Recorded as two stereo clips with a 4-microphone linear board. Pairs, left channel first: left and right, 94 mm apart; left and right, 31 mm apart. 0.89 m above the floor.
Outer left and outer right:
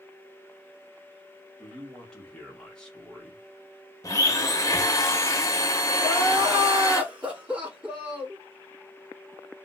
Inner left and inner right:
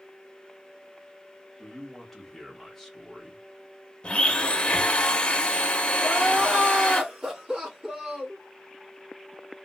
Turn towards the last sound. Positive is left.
turn(degrees=-15)  # may be behind; listen again after turning